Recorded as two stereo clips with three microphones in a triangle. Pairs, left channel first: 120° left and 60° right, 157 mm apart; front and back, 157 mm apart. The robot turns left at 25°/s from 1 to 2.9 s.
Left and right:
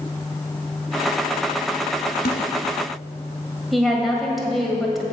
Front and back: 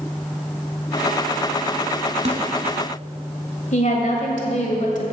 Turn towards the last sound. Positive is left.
turn(degrees=30)